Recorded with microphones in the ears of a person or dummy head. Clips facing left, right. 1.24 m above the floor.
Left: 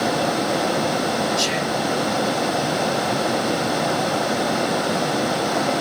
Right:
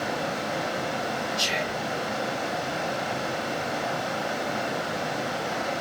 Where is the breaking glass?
No breaking glass in this recording.